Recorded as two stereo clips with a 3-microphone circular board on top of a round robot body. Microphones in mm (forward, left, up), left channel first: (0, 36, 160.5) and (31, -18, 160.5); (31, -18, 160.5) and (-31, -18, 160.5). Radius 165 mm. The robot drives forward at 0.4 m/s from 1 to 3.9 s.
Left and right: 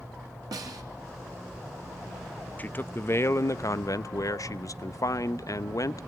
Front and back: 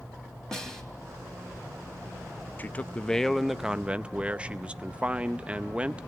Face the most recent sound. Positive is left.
turn(degrees=110)